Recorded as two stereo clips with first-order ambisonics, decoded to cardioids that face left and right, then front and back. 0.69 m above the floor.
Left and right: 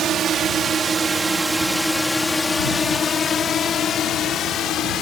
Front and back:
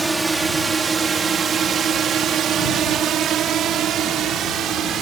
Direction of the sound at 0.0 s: 105° right.